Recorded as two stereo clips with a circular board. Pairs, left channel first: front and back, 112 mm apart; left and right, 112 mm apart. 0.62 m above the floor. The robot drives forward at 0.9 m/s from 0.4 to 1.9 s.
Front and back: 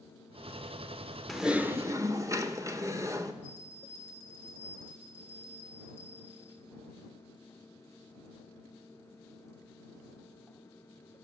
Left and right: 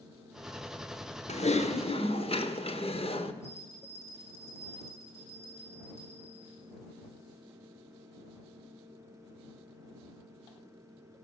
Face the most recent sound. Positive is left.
turn(degrees=110)